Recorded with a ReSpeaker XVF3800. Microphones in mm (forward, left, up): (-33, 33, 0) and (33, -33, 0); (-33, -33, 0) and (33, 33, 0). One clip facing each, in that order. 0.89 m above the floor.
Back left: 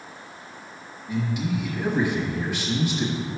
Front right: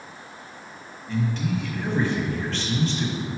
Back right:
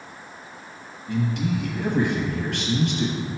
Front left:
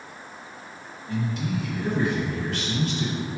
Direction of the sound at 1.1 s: 150° right.